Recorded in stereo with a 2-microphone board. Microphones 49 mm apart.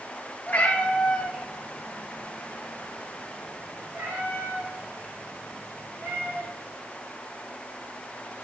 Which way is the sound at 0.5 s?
30° left (ahead or behind).